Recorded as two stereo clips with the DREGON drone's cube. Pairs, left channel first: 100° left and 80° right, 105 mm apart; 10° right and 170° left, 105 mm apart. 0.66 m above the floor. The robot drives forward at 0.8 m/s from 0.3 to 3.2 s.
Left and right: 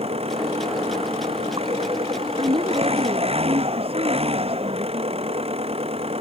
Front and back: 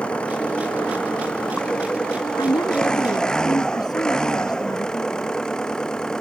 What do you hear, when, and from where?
0.0 s an engine running: 90° right; by 6.2 s 95° right
2.4 s a woman speaking: 55° right; by 5.4 s 60° right